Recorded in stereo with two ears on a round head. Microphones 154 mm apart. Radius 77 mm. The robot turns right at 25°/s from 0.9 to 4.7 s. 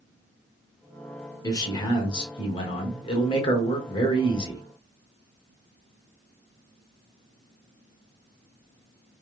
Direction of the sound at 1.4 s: 45° left.